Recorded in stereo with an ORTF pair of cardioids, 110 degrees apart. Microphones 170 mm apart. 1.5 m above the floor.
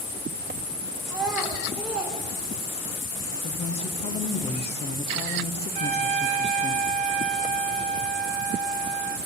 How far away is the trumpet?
About 2 m.